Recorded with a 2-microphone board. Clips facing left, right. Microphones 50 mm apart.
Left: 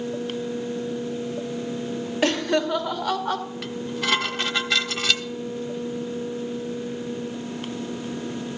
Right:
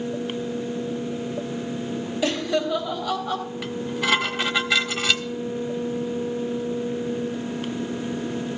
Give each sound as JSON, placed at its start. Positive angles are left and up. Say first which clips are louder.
{"t": 2.2, "sound": "laughter", "louder": "left 2 dB", "side_deg": 55, "distance_m": 1.9}
{"t": 3.6, "sound": "dishes clattering", "louder": "right 4 dB", "side_deg": -5, "distance_m": 0.9}